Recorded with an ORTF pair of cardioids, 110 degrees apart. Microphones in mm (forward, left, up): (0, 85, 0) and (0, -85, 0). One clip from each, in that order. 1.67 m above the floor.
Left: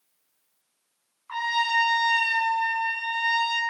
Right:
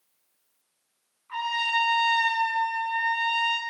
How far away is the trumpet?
About 5.5 m.